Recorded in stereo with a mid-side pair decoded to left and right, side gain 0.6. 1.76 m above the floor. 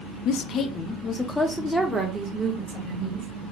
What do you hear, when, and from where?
0.2 s a woman speaking: 65° left, 0.6 m; by 3.3 s 15° right, 1.7 m